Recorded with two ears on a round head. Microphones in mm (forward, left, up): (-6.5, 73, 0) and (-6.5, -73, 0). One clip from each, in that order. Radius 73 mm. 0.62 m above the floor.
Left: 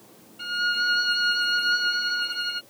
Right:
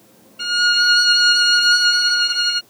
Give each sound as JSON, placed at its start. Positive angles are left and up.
{"t": 0.4, "sound": "a violin", "side_deg": -40}